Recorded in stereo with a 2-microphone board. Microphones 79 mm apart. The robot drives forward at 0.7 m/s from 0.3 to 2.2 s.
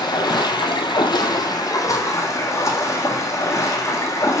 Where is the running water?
70° left (ahead or behind), 0.9 m; by 4.4 s 40° left (ahead or behind), 1.3 m.